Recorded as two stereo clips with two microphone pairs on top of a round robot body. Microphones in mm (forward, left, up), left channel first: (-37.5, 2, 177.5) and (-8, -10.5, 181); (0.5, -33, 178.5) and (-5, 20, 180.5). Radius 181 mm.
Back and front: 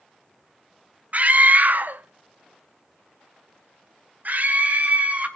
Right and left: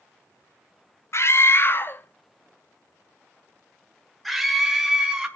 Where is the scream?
60° right, 1.7 m; by 5.3 s 15° left, 2.5 m.